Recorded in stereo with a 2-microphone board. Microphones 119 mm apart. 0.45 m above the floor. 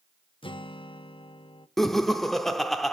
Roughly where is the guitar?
Left.